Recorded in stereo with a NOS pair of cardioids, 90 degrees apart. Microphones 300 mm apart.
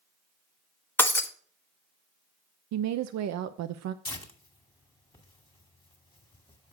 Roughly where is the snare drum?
I don't hear a snare drum.